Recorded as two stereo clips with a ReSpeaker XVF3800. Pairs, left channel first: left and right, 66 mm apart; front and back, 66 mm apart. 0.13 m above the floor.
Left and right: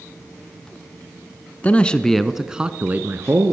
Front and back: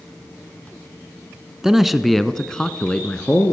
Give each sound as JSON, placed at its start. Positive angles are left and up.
{"t": 1.6, "sound": "a man speaking", "azimuth_deg": 105, "distance_m": 1.3}